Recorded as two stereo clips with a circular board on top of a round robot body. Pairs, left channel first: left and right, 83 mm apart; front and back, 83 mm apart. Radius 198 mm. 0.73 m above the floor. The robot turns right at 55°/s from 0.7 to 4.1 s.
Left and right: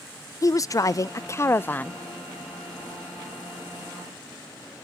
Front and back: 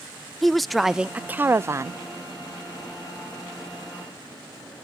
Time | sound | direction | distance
0.4 | a woman speaking | 90° left | 0.5 m